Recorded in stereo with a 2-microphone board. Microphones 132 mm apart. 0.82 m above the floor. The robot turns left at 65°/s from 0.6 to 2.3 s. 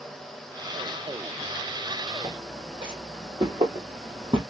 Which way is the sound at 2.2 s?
40° right (ahead or behind).